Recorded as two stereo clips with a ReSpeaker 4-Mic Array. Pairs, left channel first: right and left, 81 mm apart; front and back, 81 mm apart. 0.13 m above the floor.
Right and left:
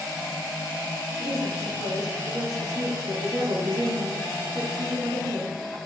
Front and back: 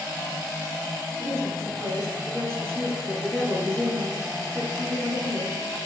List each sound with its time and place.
1.2 s a woman speaking: 125° left, 3 m